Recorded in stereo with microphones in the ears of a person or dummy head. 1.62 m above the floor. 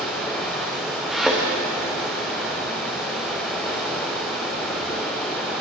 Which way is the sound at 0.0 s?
10° left (ahead or behind).